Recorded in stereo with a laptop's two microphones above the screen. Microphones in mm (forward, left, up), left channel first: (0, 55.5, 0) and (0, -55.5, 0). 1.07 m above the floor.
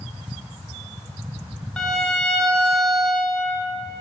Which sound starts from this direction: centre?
A violin, at 1.8 s.